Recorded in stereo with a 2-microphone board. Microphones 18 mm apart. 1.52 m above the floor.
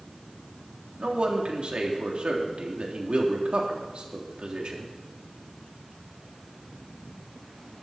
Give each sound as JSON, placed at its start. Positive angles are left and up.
{"t": 1.0, "sound": "a man speaking", "side_deg": -70, "distance_m": 3.5}